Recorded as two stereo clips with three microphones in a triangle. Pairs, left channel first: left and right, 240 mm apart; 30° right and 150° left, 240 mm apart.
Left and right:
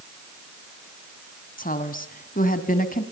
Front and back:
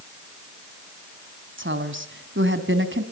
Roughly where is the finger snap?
I don't hear a finger snap.